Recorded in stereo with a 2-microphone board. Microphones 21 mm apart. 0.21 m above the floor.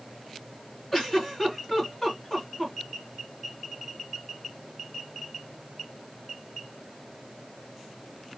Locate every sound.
0.9 s a giggle: 20° left (ahead or behind), 2 m